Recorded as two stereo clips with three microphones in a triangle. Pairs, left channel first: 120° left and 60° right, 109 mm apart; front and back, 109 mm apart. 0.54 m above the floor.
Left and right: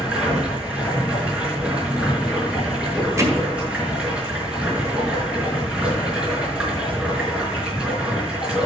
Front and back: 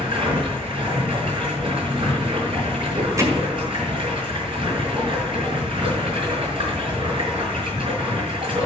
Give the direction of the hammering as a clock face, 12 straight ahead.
4 o'clock.